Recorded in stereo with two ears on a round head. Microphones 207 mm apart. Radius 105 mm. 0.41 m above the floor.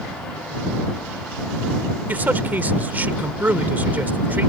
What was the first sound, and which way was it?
A man speaking, 10° right (ahead or behind).